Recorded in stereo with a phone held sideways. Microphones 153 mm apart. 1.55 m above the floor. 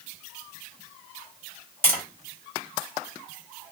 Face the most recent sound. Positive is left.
turn(degrees=15)  # may be behind; listen again after turning